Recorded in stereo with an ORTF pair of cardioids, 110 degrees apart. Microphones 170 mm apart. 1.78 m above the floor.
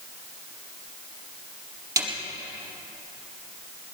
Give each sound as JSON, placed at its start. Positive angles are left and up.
{"t": 2.0, "sound": "a snare drum", "azimuth_deg": -25, "distance_m": 4.5}